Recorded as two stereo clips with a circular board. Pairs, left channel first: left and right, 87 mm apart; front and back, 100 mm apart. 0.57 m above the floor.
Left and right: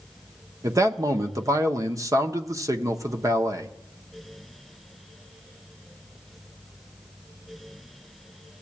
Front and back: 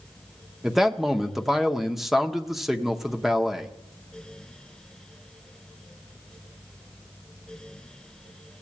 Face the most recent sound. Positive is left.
turn(degrees=-95)